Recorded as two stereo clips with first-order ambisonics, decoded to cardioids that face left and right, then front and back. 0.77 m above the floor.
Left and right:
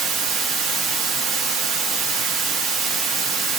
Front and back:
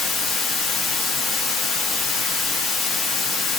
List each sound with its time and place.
0.0 s running water: 45° right, 1.0 m